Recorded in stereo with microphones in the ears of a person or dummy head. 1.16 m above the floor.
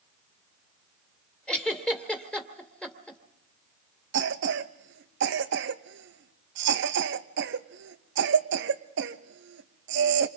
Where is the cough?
60° right (ahead or behind), 1.2 m.